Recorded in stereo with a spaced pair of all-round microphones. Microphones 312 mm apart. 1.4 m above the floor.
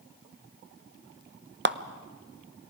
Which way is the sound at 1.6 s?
35° right (ahead or behind).